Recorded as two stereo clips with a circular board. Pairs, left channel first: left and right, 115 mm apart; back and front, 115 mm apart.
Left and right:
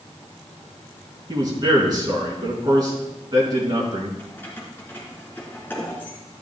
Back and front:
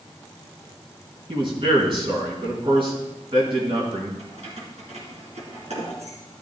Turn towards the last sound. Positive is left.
turn(degrees=15)